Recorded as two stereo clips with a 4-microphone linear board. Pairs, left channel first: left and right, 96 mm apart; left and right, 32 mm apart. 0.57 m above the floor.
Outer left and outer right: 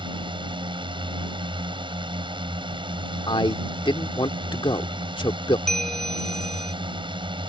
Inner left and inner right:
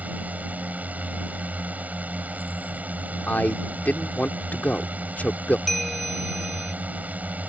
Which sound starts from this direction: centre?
A bell, at 5.7 s.